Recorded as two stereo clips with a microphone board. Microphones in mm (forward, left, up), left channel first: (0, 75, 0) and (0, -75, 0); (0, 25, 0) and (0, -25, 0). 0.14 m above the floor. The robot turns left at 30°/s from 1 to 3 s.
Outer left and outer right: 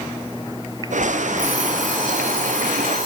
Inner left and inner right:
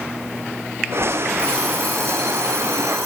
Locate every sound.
1.4 s an alarm clock: 165° right, 7 m; by 3.1 s 145° left, 7 m